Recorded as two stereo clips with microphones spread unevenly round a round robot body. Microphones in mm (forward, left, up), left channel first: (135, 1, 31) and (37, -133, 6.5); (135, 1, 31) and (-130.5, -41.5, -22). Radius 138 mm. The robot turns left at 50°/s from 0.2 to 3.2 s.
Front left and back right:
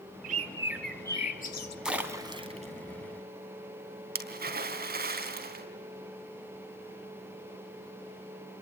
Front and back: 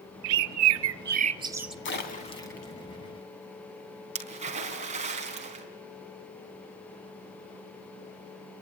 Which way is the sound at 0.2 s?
170° left.